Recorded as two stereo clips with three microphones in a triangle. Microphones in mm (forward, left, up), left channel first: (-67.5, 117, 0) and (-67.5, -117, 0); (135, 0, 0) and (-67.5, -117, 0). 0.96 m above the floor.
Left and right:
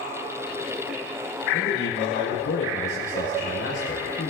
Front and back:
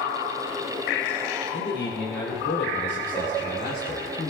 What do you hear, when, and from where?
1.5 s a man speaking: 55° left, 4 m; by 4.3 s 80° left, 3.5 m